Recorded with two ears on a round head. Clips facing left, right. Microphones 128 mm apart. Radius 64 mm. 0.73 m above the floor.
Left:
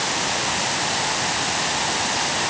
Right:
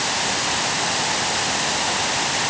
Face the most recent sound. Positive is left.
No sound to turn to.